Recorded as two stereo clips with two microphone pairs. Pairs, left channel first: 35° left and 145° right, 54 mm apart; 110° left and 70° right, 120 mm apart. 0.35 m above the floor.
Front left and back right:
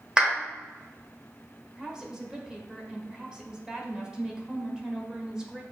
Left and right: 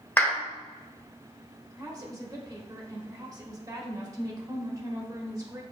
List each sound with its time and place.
0.2 s a clap: 165° left, 1.1 m
1.8 s a woman speaking: 90° right, 0.9 m